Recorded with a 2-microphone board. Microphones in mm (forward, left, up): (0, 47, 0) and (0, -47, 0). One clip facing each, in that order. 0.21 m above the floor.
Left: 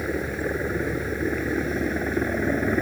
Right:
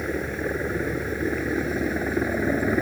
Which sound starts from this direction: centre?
A helicopter, at 0.0 s.